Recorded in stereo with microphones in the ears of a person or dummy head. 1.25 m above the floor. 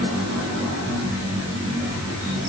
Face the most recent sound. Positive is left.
No sound to turn to.